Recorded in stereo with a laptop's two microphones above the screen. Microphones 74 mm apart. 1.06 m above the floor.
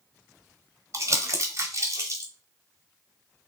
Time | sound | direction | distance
0.9 | crumpling | 45° right (ahead or behind) | 1.0 m